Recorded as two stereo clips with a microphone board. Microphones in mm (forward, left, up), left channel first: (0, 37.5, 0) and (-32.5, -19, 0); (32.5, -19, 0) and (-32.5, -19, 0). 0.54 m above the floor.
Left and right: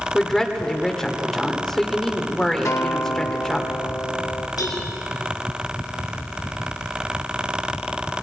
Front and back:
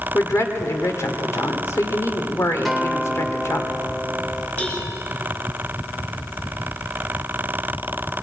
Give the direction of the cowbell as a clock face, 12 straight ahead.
10 o'clock.